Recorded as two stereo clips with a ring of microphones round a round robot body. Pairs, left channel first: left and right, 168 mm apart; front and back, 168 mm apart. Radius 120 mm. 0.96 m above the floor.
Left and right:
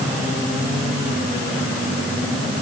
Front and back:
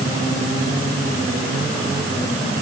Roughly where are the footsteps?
I don't hear footsteps.